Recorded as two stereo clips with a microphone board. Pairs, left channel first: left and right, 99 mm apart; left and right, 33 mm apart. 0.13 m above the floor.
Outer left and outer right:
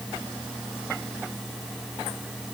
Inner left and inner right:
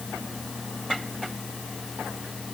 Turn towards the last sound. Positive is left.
No sound to turn to.